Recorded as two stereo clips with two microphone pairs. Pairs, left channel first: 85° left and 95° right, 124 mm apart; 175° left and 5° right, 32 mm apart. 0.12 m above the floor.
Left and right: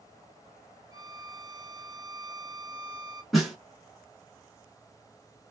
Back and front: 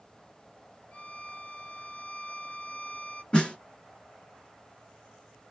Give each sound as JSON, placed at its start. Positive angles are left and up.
{"t": 0.9, "sound": "a violin", "azimuth_deg": -150, "distance_m": 0.6}
{"t": 3.3, "sound": "a snare drum", "azimuth_deg": 175, "distance_m": 1.8}